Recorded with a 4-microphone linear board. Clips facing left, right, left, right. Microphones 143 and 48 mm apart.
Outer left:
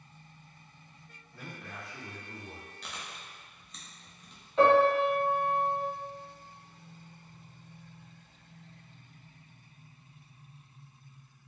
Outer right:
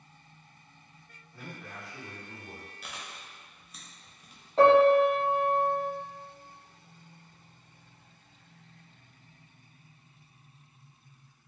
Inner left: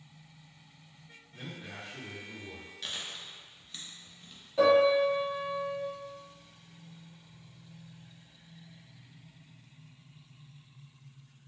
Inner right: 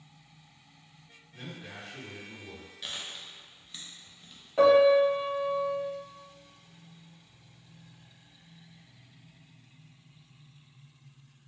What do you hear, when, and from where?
1.3 s a man speaking: centre (ahead or behind), 1.2 m
2.8 s chewing: 5° right (ahead or behind), 0.5 m
4.6 s a piano: 35° right (ahead or behind), 1.0 m